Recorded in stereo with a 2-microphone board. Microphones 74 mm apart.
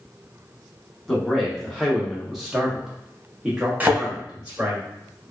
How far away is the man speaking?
About 1.0 m.